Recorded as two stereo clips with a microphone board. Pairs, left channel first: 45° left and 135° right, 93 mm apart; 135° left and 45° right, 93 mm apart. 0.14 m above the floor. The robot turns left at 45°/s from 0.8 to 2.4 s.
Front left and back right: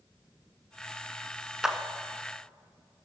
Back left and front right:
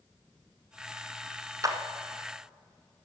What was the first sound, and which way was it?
A clap, 50° right.